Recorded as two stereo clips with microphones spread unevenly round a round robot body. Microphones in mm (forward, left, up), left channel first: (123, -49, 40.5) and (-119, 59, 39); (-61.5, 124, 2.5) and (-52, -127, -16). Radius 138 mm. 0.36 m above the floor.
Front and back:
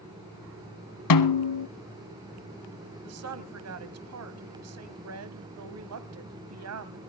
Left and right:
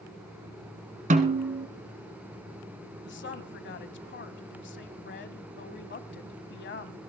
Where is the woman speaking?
135° left, 2 m.